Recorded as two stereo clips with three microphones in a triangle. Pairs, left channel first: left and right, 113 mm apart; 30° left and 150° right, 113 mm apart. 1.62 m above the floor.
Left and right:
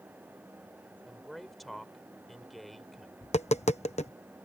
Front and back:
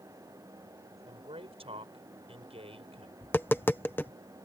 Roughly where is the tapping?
Left.